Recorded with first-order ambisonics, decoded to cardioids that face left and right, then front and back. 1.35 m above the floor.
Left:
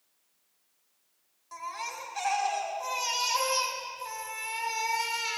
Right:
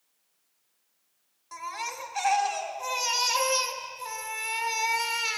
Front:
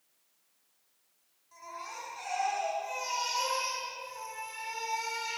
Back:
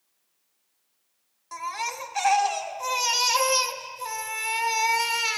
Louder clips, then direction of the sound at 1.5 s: Right 2 dB, back 12 dB; 165° right.